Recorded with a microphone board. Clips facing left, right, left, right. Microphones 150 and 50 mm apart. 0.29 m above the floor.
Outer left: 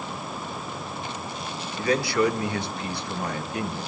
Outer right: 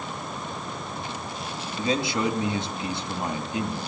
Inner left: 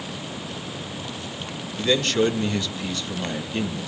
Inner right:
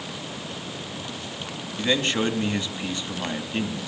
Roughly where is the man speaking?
Right.